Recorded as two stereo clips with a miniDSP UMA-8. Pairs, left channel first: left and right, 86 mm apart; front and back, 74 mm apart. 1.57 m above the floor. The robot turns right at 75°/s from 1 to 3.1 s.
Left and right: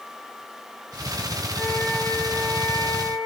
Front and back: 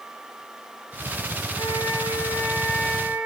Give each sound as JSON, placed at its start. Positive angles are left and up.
{"t": 1.6, "sound": "a flute", "azimuth_deg": -10, "distance_m": 2.5}